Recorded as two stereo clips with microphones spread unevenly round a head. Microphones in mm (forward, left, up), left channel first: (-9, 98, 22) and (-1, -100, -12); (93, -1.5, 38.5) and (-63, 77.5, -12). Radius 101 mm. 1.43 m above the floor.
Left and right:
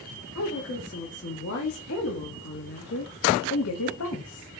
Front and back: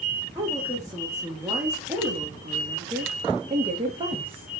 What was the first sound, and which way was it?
A woman speaking, 85° left.